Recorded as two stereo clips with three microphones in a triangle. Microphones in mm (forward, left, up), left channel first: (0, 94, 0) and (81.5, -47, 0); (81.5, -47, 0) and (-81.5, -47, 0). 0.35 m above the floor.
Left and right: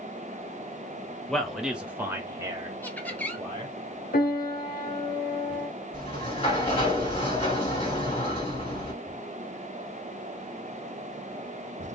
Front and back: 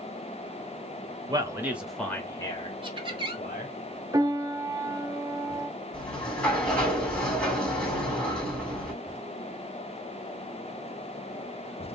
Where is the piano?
115° left, 0.7 m.